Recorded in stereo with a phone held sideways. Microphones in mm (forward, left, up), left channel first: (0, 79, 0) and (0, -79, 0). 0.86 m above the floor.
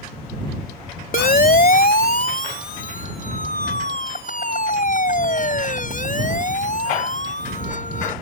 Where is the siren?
65° left (ahead or behind); by 8.1 s 55° left (ahead or behind).